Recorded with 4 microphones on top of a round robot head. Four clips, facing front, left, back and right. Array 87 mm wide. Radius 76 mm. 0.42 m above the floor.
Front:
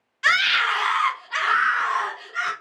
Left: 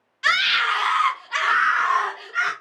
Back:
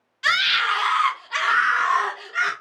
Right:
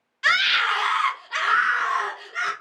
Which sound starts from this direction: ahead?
A scream, at 0.2 s.